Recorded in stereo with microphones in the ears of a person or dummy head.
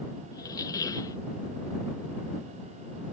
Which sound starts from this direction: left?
A squeak, at 0.3 s.